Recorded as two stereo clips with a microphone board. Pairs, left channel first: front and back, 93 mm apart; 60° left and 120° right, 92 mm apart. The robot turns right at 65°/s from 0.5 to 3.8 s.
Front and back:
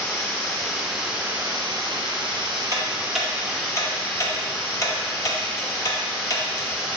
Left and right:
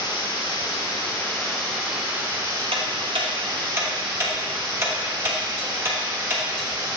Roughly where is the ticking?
Behind right.